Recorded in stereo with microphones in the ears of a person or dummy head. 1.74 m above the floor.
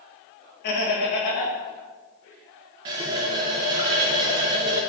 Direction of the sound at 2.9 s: 20° right (ahead or behind).